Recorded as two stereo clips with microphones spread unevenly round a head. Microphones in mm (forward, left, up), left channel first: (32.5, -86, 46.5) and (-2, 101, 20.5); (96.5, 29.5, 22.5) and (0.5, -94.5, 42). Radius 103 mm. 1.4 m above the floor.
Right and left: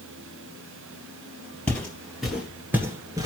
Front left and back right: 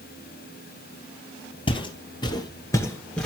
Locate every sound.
1.7 s footsteps: 5° right, 1.9 m; by 3.3 s 160° left, 1.4 m